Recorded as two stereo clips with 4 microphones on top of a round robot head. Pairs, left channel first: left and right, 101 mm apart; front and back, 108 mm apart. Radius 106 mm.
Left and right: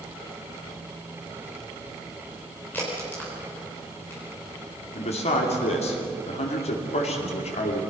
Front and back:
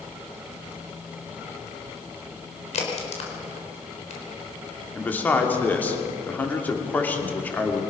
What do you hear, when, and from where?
2.7 s a crack: 15° left, 4 m
4.9 s a man speaking: 75° left, 3 m